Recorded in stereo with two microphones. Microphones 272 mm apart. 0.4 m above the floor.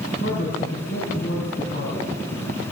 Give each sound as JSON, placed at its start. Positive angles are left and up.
{"t": 0.2, "sound": "a man speaking", "side_deg": 45, "distance_m": 4.0}